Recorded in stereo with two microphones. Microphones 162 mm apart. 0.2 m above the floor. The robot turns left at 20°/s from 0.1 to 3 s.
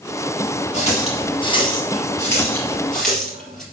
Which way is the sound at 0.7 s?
45° left (ahead or behind).